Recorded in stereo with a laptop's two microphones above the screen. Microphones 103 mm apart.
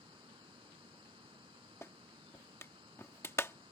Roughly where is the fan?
Right.